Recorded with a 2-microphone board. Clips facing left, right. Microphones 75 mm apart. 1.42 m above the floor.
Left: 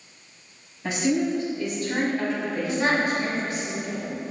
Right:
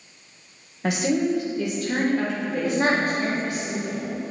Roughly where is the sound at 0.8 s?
Right.